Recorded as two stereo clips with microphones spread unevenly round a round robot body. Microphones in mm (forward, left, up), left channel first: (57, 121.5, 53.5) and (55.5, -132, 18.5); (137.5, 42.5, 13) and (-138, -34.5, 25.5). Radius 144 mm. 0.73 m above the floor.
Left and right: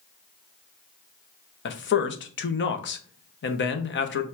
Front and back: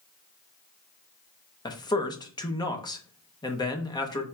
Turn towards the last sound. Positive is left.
turn(degrees=75)